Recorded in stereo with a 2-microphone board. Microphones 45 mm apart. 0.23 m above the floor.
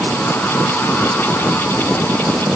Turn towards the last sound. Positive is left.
No sound to turn to.